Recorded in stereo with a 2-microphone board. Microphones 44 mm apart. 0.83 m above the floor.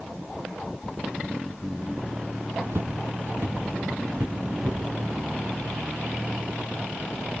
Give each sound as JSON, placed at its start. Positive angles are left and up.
{"t": 2.7, "sound": "footsteps", "side_deg": -60, "distance_m": 2.5}